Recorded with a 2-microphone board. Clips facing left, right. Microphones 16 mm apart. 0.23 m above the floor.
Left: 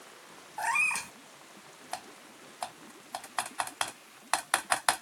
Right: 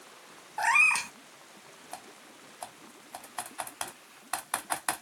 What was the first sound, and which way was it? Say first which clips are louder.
A cat meowing: right 5 dB; 25° right (ahead or behind).